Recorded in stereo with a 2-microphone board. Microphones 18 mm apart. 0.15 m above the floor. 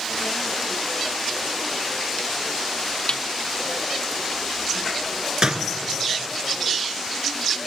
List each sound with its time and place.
3.1 s a snare drum: 55° left (ahead or behind), 1.0 m
5.4 s a door slam: 45° right (ahead or behind), 1.6 m